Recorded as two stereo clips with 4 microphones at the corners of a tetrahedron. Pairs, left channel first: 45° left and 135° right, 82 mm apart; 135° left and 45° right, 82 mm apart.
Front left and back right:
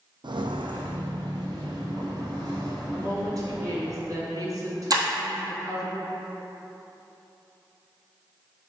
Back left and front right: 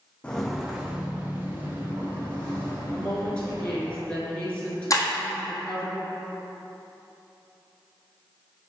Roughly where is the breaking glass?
Behind.